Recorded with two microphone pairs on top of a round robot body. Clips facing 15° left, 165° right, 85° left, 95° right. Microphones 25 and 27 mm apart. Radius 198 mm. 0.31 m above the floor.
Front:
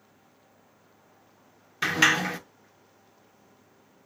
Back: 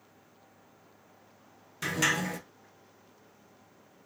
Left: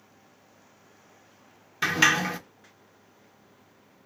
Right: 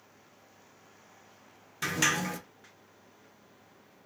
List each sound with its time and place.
1.8 s a sliding door: 45° left, 0.6 m